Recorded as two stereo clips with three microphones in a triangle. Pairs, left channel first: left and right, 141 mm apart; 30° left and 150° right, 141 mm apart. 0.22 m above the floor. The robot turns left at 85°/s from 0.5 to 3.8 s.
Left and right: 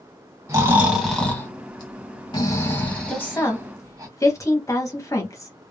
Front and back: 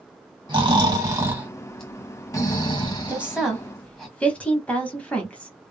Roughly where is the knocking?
No knocking in this recording.